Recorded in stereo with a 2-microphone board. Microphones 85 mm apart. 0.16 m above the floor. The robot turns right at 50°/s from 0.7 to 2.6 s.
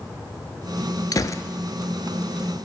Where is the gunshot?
50° left (ahead or behind), 0.6 m; by 1.4 s 35° left (ahead or behind), 0.6 m.